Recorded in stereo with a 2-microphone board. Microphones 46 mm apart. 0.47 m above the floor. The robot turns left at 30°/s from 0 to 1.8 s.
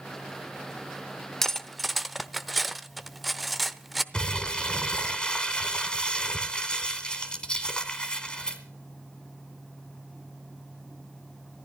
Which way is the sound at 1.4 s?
10° left (ahead or behind).